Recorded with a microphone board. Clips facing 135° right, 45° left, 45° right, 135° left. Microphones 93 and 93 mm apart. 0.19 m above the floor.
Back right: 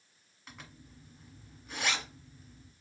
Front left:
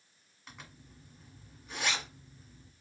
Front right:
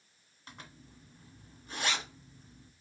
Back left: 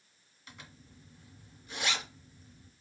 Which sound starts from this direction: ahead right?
A zipper, at 0.5 s.